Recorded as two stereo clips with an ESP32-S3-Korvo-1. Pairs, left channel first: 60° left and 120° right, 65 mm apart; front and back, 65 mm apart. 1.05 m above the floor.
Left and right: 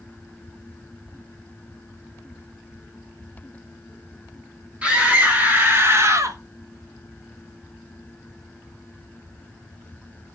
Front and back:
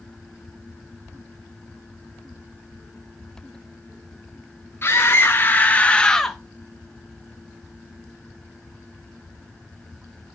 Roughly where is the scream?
Ahead right.